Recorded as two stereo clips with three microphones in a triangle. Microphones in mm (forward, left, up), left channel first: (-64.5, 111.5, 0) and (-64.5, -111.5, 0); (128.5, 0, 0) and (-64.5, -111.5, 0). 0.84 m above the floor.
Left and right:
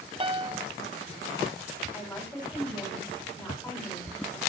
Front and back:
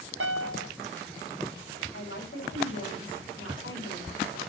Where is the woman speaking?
5° left, 6 m.